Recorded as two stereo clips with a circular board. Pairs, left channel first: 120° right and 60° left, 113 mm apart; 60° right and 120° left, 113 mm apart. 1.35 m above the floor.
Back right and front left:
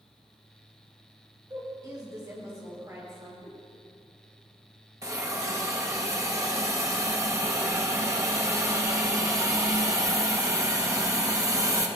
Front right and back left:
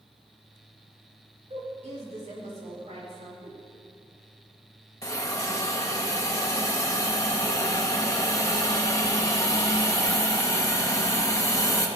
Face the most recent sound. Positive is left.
turn(degrees=0)